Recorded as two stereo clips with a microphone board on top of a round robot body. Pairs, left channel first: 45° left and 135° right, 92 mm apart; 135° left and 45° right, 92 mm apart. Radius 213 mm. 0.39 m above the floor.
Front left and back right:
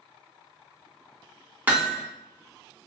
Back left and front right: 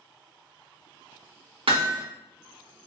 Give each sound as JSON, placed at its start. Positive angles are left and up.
{"t": 1.7, "sound": "hammering", "azimuth_deg": -65, "distance_m": 1.0}